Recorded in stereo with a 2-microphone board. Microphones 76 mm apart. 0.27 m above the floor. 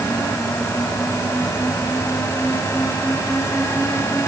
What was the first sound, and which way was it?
Only background noise.